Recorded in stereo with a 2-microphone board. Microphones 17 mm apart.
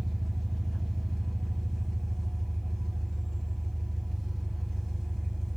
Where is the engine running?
Centre (ahead or behind), 3.5 m.